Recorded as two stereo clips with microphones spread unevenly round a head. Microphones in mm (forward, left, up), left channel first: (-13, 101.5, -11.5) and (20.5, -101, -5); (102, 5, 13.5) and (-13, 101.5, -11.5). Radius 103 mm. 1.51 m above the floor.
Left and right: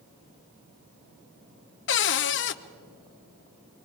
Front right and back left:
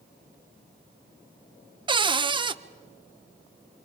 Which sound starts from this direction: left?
A cupboard door, at 1.9 s.